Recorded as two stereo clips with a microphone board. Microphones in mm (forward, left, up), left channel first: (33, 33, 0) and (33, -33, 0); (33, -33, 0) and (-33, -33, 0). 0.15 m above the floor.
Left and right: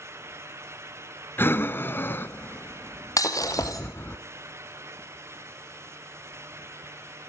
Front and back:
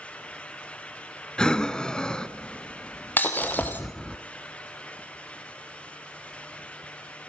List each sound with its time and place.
1.4 s breathing: 65° left, 0.9 m
3.2 s breaking glass: 60° left, 2.5 m